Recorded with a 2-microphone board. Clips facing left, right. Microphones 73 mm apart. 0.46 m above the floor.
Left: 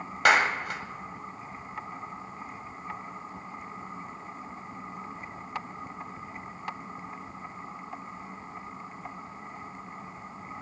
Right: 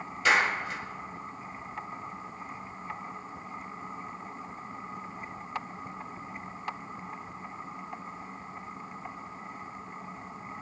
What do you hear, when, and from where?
0.2 s a clap: 65° left (ahead or behind), 2.0 m